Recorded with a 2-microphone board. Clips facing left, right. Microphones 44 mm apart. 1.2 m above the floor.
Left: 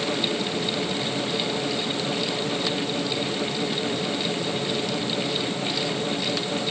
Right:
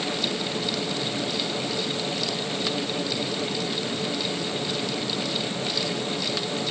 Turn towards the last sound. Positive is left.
No sound to turn to.